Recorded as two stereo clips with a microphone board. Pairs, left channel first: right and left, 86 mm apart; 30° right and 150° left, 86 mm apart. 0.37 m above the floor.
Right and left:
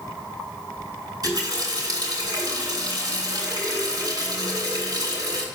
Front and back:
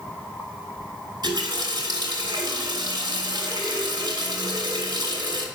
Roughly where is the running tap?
Behind left.